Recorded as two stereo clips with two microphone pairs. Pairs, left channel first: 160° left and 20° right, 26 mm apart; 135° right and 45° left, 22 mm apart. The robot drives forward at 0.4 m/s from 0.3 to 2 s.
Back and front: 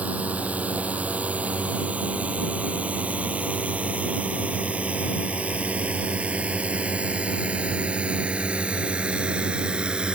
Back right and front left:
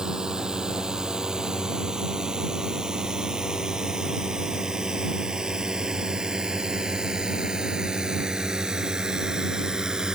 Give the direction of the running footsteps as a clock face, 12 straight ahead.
No running footsteps in this recording.